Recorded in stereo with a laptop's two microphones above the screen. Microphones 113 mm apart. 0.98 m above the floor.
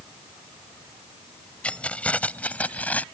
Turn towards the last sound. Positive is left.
turn(degrees=15)  # may be behind; listen again after turning